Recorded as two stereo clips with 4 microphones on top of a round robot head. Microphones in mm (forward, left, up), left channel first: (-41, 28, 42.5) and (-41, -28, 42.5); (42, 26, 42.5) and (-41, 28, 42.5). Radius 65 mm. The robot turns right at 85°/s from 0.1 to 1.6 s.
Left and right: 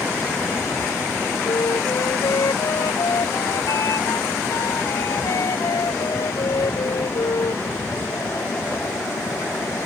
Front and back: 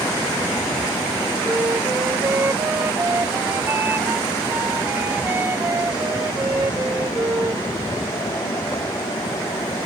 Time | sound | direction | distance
1.4 | a flute | 100° left | ?